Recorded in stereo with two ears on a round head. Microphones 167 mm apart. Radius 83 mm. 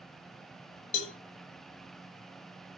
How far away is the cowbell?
About 1.0 m.